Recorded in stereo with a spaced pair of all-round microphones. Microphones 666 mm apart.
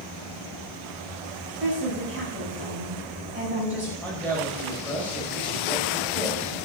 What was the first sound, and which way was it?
A woman speaking, 15° right (ahead or behind).